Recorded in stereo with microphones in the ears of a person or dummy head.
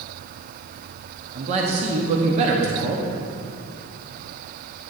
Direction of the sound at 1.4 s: 40° right (ahead or behind).